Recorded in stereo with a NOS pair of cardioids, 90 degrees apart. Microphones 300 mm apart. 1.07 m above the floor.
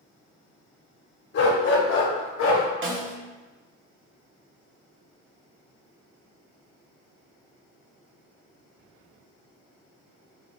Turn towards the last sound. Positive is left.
turn(degrees=-40)